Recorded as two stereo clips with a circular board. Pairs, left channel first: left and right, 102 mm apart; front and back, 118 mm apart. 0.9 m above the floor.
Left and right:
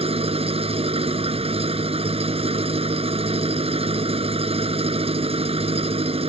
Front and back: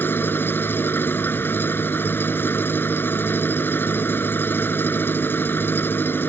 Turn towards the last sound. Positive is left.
turn(degrees=-70)